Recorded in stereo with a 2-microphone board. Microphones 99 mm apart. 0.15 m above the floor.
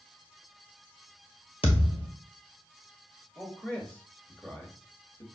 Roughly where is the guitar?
No guitar in this recording.